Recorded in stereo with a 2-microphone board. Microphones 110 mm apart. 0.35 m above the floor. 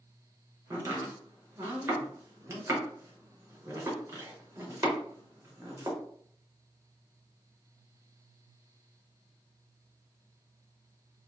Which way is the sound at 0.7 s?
25° right (ahead or behind).